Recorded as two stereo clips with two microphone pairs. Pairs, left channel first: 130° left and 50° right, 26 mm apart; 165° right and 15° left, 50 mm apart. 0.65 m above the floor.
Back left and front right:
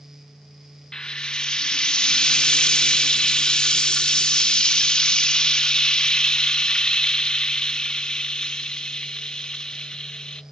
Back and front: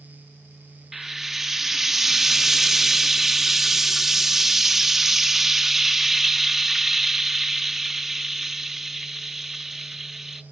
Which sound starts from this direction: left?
Frying, at 0.9 s.